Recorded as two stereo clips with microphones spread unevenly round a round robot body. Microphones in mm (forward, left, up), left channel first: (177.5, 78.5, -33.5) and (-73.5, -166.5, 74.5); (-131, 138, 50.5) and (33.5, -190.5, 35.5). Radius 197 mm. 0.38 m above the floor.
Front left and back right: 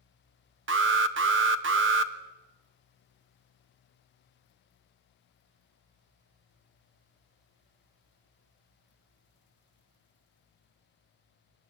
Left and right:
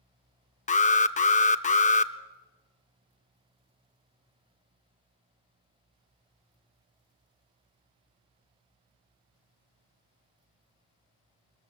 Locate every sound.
0.7 s an alarm: 170° left, 0.8 m